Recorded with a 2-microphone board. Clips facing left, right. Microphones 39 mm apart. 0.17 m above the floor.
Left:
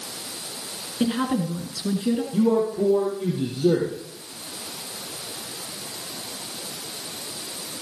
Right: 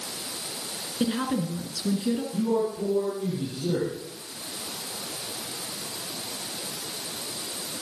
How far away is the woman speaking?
About 2.5 m.